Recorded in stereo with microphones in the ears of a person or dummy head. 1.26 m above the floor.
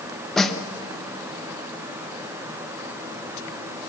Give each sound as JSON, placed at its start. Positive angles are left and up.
{"t": 0.4, "sound": "a snare drum", "side_deg": 0, "distance_m": 0.7}